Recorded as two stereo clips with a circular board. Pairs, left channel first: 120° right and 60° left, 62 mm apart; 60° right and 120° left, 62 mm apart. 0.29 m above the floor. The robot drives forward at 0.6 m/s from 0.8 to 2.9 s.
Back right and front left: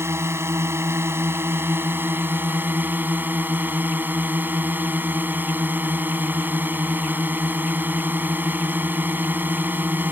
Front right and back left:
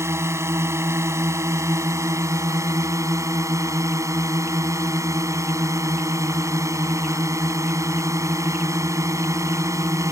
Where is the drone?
95° left; by 10.1 s 115° left.